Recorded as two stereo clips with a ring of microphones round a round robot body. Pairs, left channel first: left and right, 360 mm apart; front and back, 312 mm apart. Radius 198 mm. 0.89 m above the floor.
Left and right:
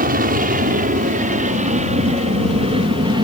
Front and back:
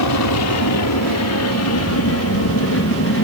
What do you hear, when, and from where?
0.0 s an aircraft: 25° right; by 3.2 s 20° right